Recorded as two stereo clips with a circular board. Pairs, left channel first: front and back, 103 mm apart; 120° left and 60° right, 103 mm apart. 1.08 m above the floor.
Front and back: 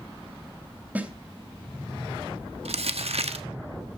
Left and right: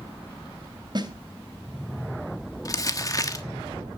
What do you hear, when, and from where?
0.9 s a snare drum: 105° right, 3 m
2.6 s crumpling: 175° left, 1.3 m